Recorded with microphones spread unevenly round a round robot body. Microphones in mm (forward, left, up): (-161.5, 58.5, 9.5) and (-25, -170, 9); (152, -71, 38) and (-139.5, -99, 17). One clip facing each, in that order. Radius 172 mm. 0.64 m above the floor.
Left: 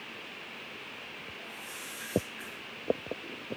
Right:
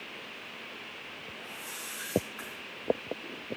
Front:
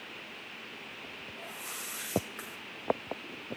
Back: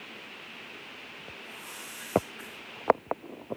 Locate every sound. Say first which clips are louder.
1.4 s a whoosh: right 1 dB, even; 5° right, 3 m